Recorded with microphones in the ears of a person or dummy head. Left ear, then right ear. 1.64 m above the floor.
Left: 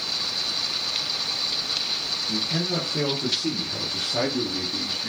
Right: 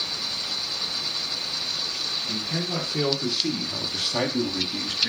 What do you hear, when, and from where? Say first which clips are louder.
2.3 s a man speaking: left 2 dB; 25° right (ahead or behind), 6 m; by 5.1 s 50° right (ahead or behind), 3 m